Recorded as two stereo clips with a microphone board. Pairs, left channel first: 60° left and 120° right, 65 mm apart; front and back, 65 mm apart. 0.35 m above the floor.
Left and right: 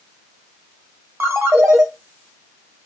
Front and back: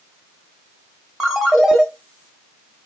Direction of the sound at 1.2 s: 95° right.